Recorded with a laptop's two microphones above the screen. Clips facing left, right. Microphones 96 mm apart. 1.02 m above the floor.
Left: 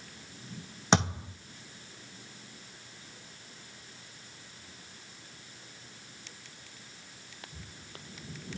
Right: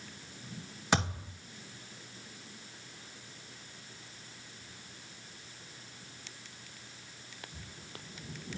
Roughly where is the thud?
Left.